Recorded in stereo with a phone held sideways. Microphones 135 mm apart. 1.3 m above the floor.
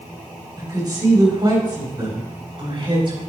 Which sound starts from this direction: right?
A woman speaking, at 0.6 s.